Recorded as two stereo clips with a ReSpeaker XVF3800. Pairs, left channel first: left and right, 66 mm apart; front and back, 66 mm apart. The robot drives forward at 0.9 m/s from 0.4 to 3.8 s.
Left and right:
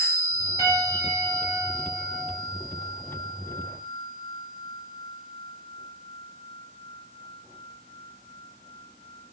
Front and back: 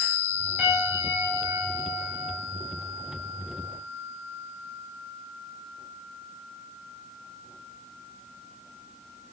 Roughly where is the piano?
Right.